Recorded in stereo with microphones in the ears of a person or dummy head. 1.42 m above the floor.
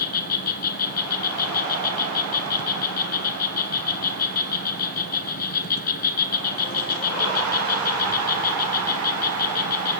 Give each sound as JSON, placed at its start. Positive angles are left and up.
{"t": 0.0, "sound": "an insect", "side_deg": 60, "distance_m": 1.6}